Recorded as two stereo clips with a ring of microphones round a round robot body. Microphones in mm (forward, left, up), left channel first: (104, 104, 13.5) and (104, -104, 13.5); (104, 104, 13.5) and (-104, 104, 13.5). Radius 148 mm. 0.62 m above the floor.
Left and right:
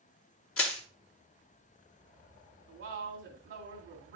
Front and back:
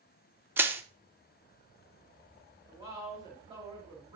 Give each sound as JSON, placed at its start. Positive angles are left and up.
{"t": 0.6, "sound": "crushing", "azimuth_deg": 100, "distance_m": 1.0}
{"t": 2.7, "sound": "a woman speaking", "azimuth_deg": -110, "distance_m": 2.0}